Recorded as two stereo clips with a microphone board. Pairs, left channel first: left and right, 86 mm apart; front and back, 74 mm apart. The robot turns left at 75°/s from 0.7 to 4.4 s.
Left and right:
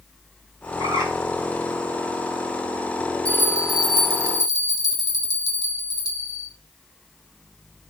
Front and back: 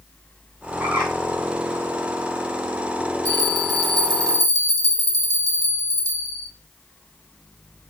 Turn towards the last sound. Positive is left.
turn(degrees=130)